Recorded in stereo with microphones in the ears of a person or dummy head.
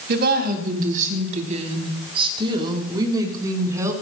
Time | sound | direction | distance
0.1 | a woman speaking | 60° right (ahead or behind) | 2.5 m